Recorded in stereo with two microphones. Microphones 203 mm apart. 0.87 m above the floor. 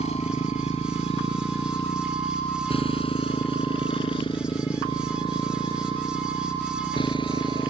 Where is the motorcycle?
30° left (ahead or behind); by 7.7 s 25° left (ahead or behind).